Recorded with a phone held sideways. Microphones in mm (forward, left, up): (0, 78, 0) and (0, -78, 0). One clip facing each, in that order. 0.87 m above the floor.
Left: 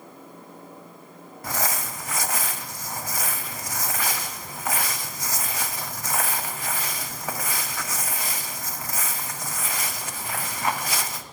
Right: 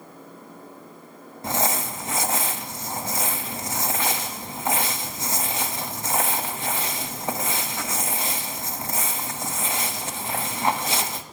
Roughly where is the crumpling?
Right.